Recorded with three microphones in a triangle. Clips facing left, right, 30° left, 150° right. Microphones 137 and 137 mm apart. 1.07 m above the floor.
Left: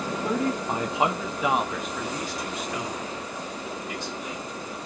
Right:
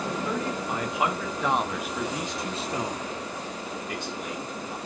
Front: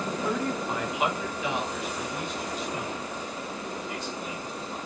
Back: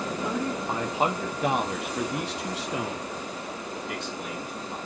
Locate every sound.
0.2 s a man speaking: 135° left, 2.5 m; by 4.8 s 120° right, 4 m